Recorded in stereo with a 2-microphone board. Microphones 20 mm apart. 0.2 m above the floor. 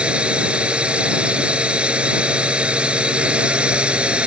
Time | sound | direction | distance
0.0 | a drone | 60° right (ahead or behind) | ?